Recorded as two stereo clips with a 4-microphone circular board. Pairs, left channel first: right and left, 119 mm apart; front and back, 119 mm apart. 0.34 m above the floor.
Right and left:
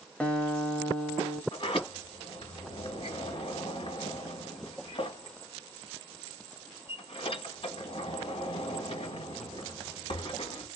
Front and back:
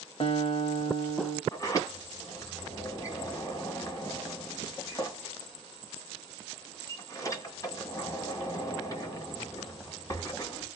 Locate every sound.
0.2 s a guitar: 15° right, 0.8 m
1.5 s a sliding door: 60° right, 1.3 m